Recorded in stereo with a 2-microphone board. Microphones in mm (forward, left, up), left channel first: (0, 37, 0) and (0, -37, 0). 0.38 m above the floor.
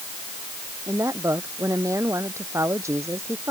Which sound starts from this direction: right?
A woman speaking, at 0.9 s.